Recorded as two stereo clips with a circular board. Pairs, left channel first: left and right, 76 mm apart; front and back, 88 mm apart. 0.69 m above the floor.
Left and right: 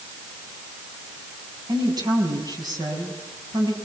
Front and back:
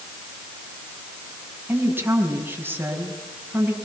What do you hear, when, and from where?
1.7 s a woman speaking: 115° right, 5.5 m